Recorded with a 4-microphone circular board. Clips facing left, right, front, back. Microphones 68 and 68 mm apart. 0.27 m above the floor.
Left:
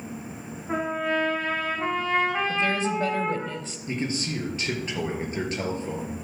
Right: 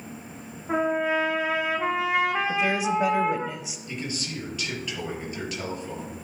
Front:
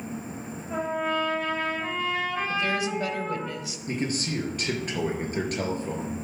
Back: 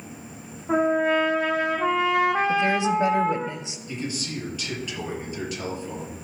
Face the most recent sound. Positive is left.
turn(degrees=40)